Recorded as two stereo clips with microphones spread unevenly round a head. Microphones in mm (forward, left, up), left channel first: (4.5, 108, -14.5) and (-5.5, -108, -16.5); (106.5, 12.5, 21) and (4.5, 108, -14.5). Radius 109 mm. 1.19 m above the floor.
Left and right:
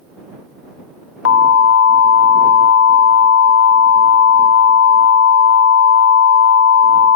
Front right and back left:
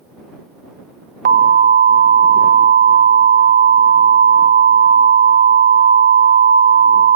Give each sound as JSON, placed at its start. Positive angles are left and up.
{"t": 1.2, "sound": "an alarm", "azimuth_deg": 120}